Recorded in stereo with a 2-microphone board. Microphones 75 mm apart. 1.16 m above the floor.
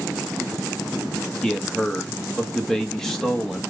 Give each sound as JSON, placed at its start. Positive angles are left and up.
{"t": 1.4, "sound": "a man speaking", "side_deg": 5, "distance_m": 1.8}